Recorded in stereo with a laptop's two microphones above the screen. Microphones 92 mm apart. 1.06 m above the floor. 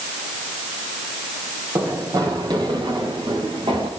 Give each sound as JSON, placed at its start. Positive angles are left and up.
{"t": 1.8, "sound": "running footsteps", "side_deg": -45, "distance_m": 7.5}